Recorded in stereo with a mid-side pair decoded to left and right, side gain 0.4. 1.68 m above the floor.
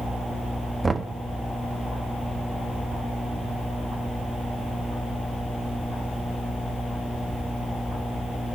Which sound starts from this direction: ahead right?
Knocking, at 0.8 s.